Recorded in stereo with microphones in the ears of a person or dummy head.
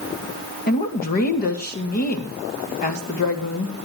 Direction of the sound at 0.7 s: 50° left (ahead or behind).